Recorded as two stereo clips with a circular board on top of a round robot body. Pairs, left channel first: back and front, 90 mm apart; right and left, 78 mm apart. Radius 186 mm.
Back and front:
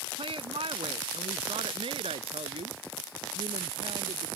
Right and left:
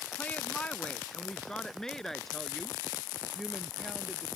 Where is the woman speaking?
20° right; by 4.3 s 5° left.